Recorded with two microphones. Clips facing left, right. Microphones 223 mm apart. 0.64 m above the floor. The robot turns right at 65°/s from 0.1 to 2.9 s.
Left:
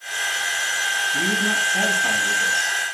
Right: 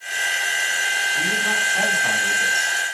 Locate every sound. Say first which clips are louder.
1.1 s a man speaking: left 5 dB; 120° left, 5 m; by 2.8 s 135° right, 5 m